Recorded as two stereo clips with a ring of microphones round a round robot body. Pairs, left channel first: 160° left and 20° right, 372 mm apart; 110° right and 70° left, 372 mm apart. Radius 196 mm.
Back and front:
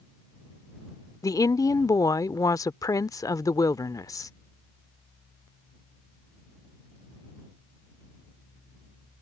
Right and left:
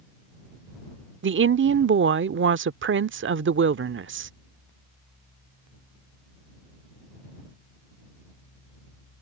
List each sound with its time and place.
1.2 s a woman speaking: 85° left